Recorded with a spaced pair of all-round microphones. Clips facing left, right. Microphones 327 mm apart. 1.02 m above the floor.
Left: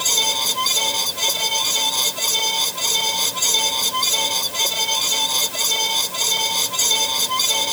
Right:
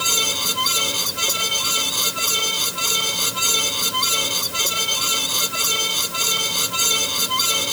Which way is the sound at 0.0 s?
15° right (ahead or behind).